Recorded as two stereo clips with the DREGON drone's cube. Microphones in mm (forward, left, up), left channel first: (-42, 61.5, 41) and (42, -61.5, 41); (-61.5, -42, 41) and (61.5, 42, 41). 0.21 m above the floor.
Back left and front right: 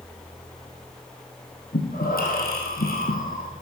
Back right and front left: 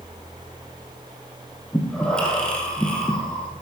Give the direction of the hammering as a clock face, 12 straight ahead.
I don't hear hammering.